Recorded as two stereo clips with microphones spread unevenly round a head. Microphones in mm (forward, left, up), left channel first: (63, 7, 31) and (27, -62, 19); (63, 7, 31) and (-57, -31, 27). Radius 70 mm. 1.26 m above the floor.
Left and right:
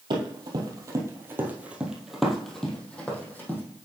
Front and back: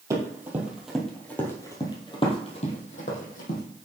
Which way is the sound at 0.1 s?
95° right.